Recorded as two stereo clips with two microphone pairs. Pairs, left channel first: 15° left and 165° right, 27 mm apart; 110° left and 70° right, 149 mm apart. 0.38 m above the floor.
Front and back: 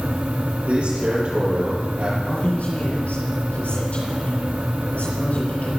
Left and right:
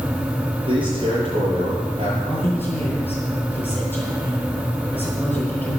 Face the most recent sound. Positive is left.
turn(degrees=35)